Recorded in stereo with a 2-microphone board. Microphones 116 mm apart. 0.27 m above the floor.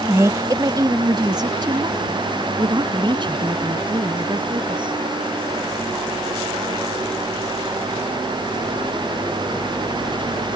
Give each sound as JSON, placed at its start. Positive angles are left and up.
{"t": 0.1, "sound": "a woman speaking", "side_deg": -25}